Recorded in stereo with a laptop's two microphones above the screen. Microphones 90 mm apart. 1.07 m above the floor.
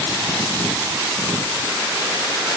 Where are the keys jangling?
I don't hear keys jangling.